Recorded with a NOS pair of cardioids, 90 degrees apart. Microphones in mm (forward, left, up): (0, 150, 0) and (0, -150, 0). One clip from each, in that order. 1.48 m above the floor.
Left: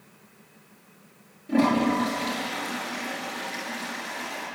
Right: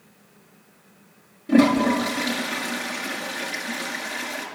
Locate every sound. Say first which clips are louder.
1.5 s a toilet flushing: right 4 dB; 55° right, 6.5 m